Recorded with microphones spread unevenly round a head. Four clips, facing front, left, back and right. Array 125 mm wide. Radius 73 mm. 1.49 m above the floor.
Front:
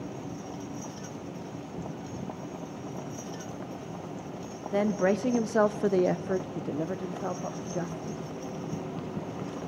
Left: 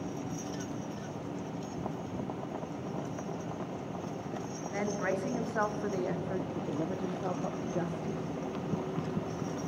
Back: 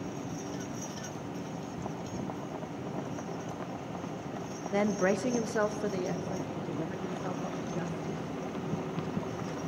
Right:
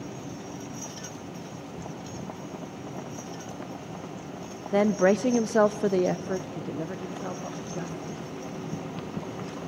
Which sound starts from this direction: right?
A woman speaking, at 4.7 s.